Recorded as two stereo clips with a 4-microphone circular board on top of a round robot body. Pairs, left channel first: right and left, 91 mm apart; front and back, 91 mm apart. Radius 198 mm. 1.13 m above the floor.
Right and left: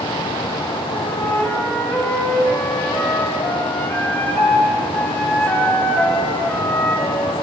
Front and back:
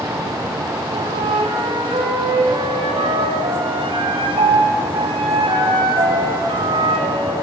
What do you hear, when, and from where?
0.9 s a flute: 165° right, 3 m